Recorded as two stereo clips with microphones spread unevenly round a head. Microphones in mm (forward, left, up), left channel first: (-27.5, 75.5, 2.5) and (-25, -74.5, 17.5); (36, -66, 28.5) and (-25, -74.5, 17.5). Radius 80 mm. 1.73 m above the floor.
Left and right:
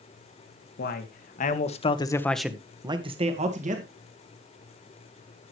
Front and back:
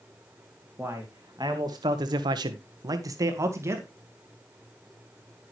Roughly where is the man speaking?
Behind left.